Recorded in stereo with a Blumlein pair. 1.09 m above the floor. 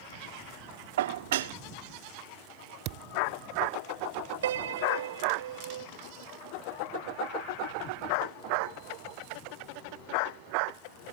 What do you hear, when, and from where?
1.0 s dishes clattering: 55° right
2.9 s a thud: 40° right
4.4 s a piano: 60° right